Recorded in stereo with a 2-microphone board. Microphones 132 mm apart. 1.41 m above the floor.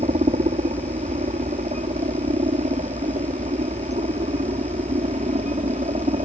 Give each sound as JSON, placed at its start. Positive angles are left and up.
{"t": 0.0, "sound": "a helicopter", "side_deg": -65}